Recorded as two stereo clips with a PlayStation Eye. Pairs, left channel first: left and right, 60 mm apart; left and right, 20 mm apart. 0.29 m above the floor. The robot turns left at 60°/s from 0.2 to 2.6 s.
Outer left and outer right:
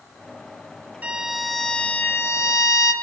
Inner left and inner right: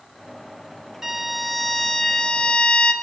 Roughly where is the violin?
Behind right.